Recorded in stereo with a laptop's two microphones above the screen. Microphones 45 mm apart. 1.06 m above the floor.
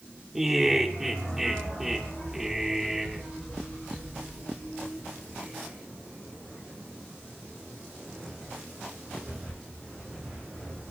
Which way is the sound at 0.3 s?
5° right (ahead or behind).